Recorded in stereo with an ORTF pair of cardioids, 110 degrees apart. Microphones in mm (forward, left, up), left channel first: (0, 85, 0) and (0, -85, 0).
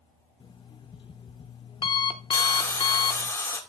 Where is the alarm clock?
30° left, 1.0 m.